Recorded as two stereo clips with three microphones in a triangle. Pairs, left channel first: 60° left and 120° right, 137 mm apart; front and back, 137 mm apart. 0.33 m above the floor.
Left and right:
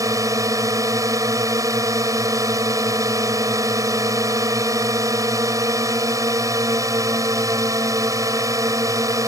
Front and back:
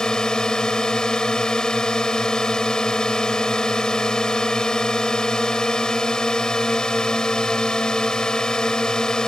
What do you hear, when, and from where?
0.0 s a drone: 80° right